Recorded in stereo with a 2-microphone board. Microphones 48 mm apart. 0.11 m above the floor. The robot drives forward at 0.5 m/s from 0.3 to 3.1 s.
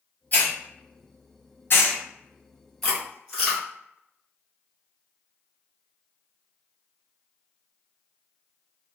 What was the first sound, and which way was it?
A hiss, 40° left (ahead or behind).